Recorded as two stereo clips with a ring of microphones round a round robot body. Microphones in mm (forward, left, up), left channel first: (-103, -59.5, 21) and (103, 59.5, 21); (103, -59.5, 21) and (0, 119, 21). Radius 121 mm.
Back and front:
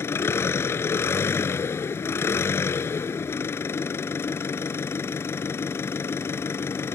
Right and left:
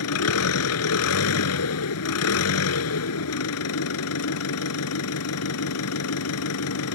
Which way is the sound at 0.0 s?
70° right.